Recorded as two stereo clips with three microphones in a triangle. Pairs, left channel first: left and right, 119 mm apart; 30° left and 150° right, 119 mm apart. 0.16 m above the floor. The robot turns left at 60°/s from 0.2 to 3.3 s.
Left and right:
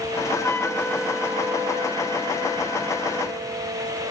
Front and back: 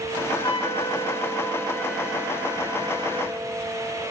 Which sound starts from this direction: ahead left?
A flute, at 0.3 s.